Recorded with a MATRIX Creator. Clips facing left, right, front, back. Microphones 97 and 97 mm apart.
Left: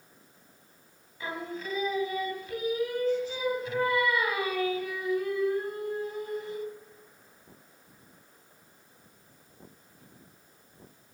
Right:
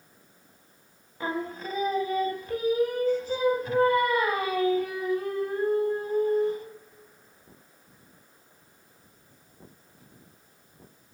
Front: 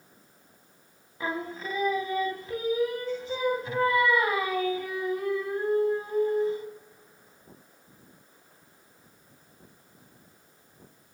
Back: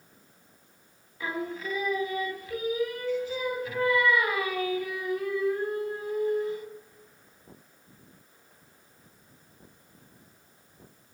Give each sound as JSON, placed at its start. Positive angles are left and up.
{"t": 1.2, "sound": "singing", "azimuth_deg": -50, "distance_m": 0.8}